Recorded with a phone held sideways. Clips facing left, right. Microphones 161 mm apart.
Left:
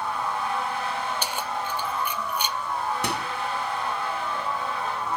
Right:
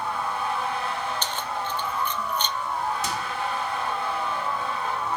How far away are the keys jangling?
About 0.8 m.